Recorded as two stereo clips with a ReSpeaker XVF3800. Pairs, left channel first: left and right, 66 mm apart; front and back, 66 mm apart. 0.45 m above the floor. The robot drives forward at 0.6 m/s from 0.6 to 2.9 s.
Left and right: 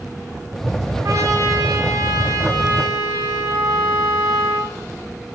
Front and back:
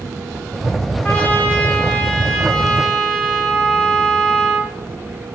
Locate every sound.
1.0 s a trumpet: 65° right, 3 m; by 4.7 s 85° right, 2.5 m